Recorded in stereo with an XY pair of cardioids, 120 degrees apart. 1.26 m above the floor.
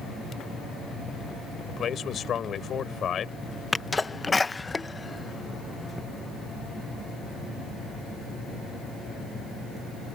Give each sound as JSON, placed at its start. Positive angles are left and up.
{"t": 1.7, "sound": "a man speaking", "azimuth_deg": 45}
{"t": 3.7, "sound": "a sneeze", "azimuth_deg": 15}